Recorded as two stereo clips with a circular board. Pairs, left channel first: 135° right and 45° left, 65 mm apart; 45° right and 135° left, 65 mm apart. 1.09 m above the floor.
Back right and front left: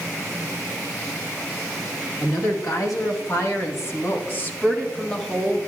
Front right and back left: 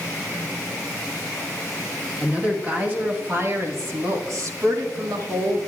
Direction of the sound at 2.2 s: 155° right.